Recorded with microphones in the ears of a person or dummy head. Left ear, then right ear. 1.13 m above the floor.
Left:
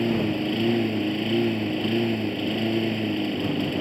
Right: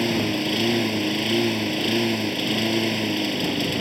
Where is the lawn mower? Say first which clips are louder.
Right 2 dB; 35° right (ahead or behind).